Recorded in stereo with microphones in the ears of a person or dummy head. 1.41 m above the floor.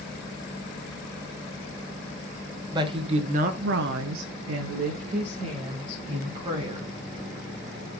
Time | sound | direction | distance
2.7 | a woman speaking | 25° right (ahead or behind) | 1.5 m